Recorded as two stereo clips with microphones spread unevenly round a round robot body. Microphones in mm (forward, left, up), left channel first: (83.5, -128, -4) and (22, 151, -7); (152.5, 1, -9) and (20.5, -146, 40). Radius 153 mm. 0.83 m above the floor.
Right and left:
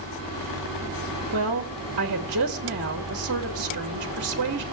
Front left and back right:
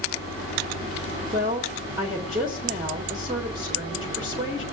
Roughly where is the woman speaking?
Behind left.